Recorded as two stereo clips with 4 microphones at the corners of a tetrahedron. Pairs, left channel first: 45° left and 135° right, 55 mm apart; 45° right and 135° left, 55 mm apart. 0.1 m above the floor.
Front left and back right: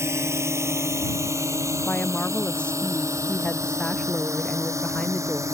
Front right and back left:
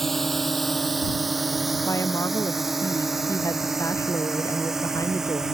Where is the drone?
130° right; by 5.6 s 145° right.